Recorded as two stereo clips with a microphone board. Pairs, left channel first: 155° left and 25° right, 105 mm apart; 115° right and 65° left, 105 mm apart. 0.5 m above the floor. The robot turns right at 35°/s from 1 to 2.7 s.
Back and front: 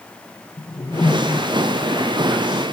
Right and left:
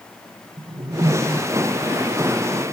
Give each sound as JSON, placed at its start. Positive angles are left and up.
{"t": 0.6, "sound": "a whoosh", "azimuth_deg": 105, "distance_m": 0.5}